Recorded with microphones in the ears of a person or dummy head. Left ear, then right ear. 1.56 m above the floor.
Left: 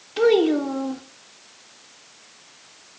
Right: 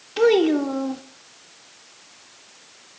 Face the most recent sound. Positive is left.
turn(degrees=-5)  # may be behind; listen again after turning